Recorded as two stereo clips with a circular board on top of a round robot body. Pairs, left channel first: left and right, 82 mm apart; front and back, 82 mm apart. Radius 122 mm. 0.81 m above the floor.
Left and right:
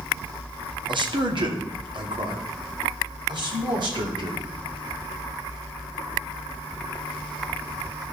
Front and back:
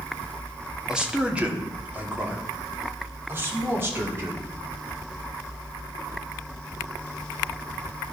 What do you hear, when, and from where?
0.9 s a man speaking: 100° right, 1.9 m; by 4.5 s 120° right, 3.5 m